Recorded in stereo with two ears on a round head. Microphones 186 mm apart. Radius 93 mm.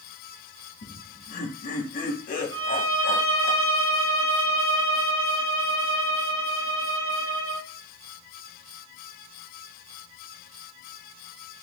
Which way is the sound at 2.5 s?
25° right (ahead or behind).